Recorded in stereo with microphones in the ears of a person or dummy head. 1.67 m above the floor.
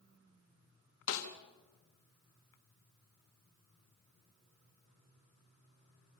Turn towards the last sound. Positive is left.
turn(degrees=80)